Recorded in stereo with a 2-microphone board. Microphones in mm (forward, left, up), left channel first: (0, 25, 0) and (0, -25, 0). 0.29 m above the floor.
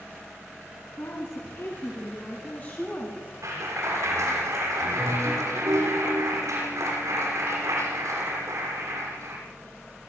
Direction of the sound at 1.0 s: 60° left (ahead or behind).